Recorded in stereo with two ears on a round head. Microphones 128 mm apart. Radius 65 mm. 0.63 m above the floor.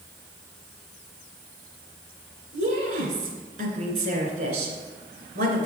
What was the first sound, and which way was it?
A woman speaking, 65° right (ahead or behind).